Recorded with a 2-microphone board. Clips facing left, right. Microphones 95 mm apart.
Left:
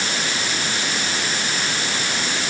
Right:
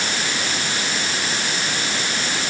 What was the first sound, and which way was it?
Only background noise.